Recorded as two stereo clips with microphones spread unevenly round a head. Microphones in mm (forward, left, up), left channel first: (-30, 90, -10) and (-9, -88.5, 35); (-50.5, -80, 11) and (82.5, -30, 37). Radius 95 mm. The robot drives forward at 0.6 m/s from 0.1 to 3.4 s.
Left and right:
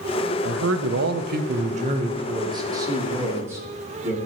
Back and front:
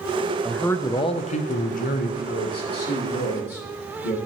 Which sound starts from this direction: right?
A man speaking, at 0.5 s.